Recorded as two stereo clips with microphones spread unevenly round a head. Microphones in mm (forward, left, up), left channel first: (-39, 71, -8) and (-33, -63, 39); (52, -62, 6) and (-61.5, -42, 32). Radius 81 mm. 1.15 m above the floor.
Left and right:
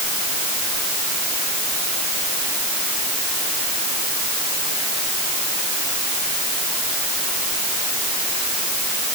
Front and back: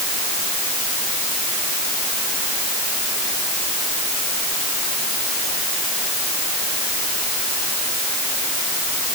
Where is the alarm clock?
I don't hear an alarm clock.